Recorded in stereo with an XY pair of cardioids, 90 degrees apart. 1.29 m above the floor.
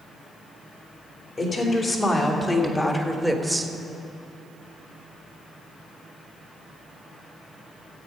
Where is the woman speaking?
40° left, 3.5 m; by 3.7 s 25° right, 1.3 m.